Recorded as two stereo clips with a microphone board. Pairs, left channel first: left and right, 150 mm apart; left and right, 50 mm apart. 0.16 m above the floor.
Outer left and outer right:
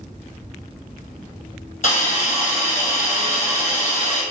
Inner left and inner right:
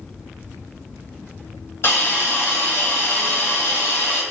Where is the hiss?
60° left (ahead or behind), 0.9 m.